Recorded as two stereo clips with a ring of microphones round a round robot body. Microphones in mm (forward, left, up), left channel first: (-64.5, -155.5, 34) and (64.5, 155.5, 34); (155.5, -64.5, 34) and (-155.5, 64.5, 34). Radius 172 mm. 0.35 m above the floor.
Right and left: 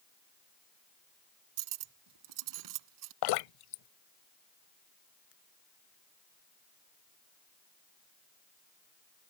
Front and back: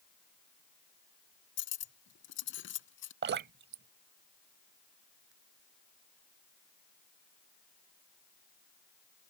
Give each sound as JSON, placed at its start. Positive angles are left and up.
{"t": 1.6, "sound": "cutlery clinking", "azimuth_deg": 35}
{"t": 3.2, "sound": "dripping", "azimuth_deg": -140}